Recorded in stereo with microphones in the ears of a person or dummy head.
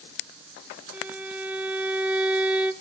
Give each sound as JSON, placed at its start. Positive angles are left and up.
{"t": 0.9, "sound": "a violin", "side_deg": -5, "distance_m": 1.2}